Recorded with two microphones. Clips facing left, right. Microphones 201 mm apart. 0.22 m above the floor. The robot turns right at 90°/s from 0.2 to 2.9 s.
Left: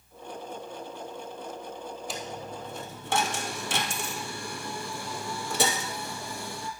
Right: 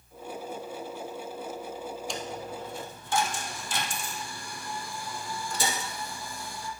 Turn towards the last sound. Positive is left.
turn(degrees=75)  # may be behind; listen again after turning